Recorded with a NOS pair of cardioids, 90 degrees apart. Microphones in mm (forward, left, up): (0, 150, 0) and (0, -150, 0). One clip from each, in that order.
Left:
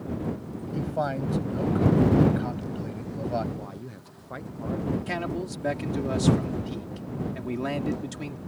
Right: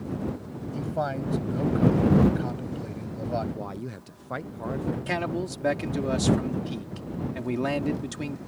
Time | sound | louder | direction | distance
0.7 | a man speaking | left 1 dB | straight ahead | ?
3.5 | a man speaking | right 4 dB | 25° right | ?
5.1 | a man speaking | right 2 dB | 25° right | ?